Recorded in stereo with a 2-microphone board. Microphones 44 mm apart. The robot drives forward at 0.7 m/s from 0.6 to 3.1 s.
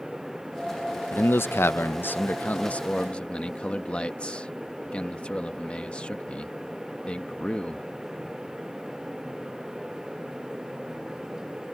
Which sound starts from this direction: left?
A man speaking, at 1.1 s.